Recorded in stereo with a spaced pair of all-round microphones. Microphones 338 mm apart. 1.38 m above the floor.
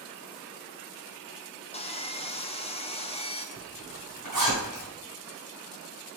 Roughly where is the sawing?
Centre.